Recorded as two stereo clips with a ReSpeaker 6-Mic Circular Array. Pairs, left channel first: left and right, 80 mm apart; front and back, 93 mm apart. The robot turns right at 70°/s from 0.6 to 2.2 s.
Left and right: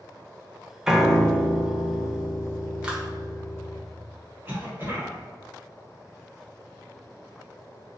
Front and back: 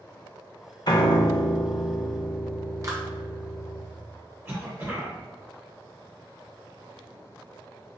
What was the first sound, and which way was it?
A piano, 15° right.